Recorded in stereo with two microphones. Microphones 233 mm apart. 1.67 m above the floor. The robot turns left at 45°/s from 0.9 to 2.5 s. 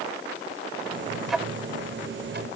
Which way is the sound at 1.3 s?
Centre (ahead or behind).